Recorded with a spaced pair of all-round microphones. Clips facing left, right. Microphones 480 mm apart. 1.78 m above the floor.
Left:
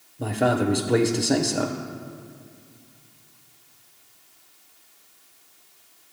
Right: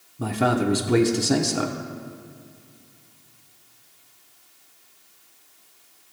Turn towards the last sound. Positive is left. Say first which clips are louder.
# even
turn(degrees=-25)  # may be behind; listen again after turning